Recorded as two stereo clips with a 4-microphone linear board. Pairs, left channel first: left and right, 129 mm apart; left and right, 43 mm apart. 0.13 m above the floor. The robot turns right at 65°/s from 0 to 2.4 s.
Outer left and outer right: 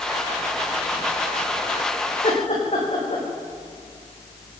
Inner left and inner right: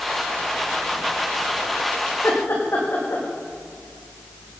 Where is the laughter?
70° left (ahead or behind), 9 m; by 3.2 s 60° left (ahead or behind), 9 m.